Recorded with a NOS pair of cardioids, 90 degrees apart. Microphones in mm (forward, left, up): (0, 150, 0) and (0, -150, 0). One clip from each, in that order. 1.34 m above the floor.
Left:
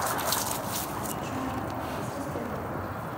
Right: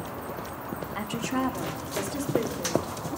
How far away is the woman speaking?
About 2 m.